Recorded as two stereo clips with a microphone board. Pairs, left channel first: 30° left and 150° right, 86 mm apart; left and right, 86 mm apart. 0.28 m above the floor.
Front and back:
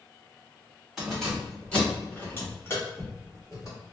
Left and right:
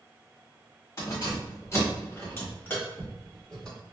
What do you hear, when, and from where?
1.0 s keys jangling: 125° left, 1.3 m; by 3.8 s 10° left, 1.3 m